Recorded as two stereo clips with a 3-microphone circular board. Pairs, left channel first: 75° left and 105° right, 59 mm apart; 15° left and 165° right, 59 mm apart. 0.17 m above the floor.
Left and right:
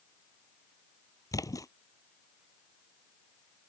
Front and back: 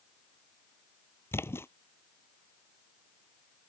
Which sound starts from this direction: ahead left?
A splash, at 1.3 s.